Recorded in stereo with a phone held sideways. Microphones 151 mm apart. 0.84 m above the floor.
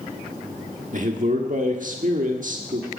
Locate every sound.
0.9 s a man speaking: 60° right (ahead or behind), 1.4 m